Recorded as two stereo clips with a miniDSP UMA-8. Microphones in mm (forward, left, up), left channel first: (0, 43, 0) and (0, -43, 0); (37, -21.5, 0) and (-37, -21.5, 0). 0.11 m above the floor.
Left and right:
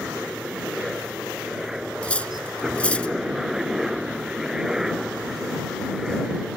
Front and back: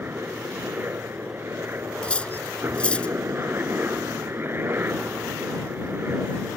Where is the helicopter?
170° right.